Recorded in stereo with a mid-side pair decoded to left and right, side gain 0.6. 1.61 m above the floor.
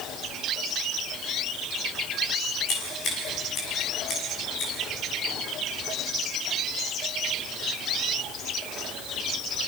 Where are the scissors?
50° left, 6.5 m.